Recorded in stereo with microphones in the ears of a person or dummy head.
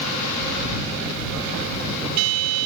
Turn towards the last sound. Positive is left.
No sound to turn to.